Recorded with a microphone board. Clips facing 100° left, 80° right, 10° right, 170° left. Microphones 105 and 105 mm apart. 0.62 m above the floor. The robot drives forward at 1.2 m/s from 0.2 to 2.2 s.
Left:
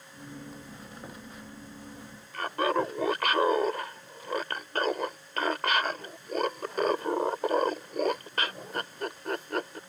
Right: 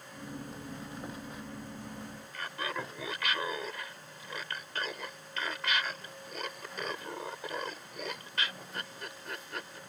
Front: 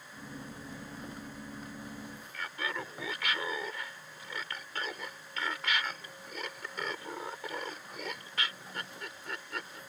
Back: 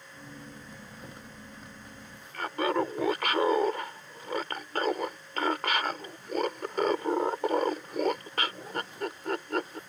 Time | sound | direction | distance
2.3 | laughter | 135° left | ?